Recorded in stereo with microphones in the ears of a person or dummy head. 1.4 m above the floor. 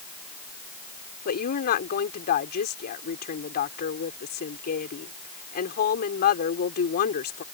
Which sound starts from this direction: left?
A woman speaking, at 1.2 s.